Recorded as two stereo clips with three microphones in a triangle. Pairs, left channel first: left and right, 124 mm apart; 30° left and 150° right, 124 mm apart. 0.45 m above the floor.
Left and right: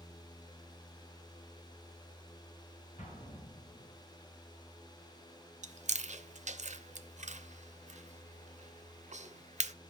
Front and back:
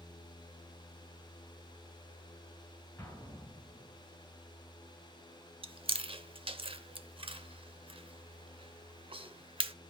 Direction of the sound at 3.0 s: 105° left.